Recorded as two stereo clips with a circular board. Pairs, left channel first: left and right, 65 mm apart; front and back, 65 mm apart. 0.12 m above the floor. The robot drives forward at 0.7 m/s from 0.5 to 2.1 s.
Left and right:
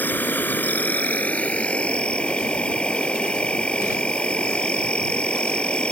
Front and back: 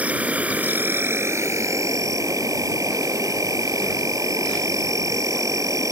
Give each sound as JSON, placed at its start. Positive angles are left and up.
{"t": 0.0, "sound": "an insect", "azimuth_deg": 130}